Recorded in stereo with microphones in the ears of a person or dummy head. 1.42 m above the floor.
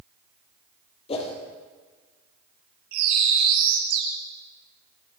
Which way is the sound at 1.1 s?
35° left (ahead or behind).